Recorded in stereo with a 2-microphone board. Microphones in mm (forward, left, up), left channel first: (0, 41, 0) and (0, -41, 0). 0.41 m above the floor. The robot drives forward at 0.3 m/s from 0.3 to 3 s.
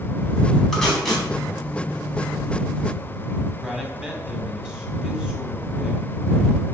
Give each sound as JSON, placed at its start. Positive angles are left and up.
{"t": 0.7, "sound": "tape being pulled", "side_deg": 5, "distance_m": 3.5}
{"t": 3.6, "sound": "a man speaking", "side_deg": -10, "distance_m": 2.0}